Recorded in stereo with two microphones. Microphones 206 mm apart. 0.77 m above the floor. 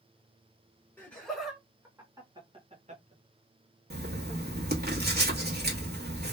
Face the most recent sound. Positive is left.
turn(degrees=-50)  # may be behind; listen again after turning